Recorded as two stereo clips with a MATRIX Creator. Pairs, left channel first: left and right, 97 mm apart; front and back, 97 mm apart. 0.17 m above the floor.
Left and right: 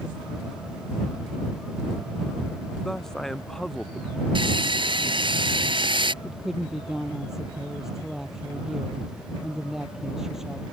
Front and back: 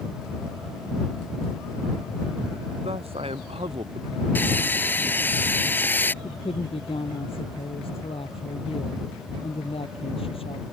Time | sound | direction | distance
2.8 | a man speaking | 175° left | ?
4.3 | sawing | 70° right | ?
6.2 | a woman speaking | 5° right | ?